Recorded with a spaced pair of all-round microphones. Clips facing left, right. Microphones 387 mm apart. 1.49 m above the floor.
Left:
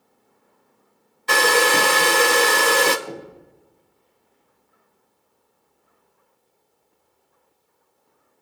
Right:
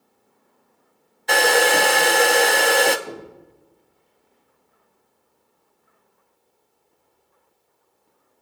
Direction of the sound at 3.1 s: 25° right (ahead or behind).